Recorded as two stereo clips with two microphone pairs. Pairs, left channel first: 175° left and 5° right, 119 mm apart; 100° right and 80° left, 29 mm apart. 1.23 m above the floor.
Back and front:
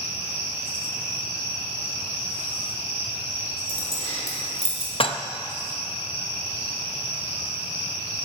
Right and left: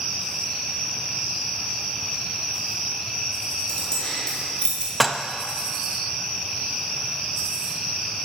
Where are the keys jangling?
165° right, 3.5 m; by 4.9 s 155° right, 3 m.